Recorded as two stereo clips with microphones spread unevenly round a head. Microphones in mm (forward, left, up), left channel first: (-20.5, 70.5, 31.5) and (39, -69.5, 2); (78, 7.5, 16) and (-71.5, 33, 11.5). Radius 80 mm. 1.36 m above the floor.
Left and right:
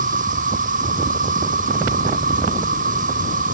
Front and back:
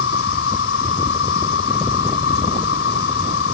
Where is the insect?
30° right.